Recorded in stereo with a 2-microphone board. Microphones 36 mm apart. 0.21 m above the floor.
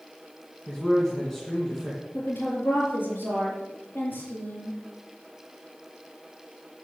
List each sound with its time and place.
0.7 s a man speaking: 10° left (ahead or behind), 2.5 m
2.1 s a woman speaking: 60° left (ahead or behind), 5.5 m